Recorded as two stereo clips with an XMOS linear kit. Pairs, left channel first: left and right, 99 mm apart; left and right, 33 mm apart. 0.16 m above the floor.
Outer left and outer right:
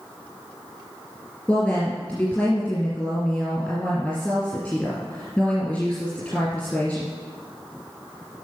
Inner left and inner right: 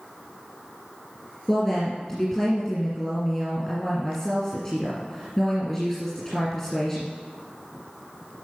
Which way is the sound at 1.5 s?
10° left (ahead or behind).